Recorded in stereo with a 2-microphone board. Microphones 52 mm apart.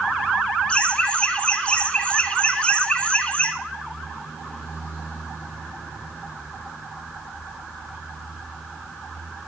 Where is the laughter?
25° left (ahead or behind), 1.2 m.